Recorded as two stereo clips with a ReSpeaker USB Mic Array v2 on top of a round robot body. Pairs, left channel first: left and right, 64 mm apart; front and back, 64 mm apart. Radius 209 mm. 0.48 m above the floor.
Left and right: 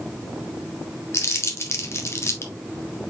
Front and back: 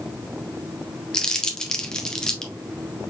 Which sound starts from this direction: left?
Crumpling, at 1.1 s.